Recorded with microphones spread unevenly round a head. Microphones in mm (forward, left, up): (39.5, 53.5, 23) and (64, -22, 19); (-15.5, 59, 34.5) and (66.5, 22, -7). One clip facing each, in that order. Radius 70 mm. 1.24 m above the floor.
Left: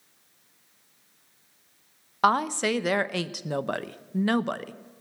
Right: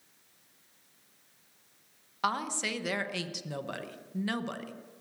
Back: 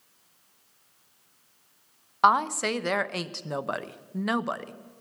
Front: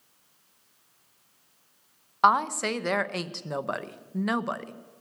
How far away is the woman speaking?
About 0.8 m.